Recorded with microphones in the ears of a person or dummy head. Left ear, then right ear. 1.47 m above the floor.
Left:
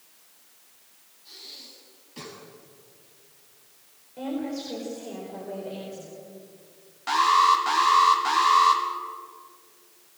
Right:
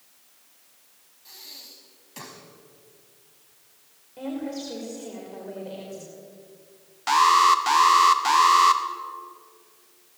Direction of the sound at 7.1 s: 25° right (ahead or behind).